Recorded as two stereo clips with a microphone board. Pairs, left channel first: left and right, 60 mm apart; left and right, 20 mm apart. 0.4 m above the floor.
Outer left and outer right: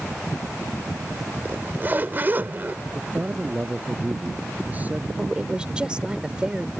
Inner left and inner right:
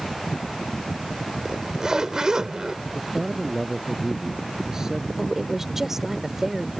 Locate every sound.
1.4 s a zipper: 35° right (ahead or behind)
2.9 s a man speaking: 30° right (ahead or behind)
5.2 s a woman speaking: 15° right (ahead or behind)